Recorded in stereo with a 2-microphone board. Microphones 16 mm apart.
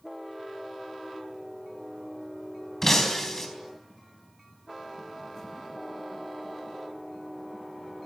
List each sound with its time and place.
2.8 s breaking glass: 20° left (ahead or behind), 4 m